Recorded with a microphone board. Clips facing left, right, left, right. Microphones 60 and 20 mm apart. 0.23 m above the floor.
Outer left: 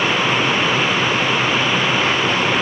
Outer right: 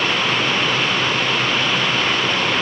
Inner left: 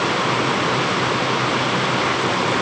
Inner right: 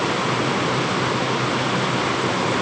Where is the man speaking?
I don't hear a man speaking.